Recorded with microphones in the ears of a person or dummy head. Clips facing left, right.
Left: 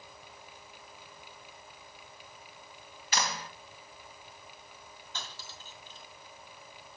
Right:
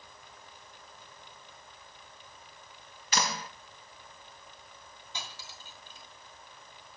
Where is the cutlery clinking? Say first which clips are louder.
Right 1 dB; 15° right (ahead or behind), 1.9 m.